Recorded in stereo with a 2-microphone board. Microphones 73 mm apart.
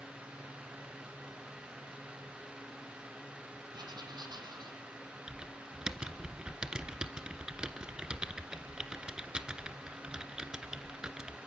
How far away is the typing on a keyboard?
About 1.9 m.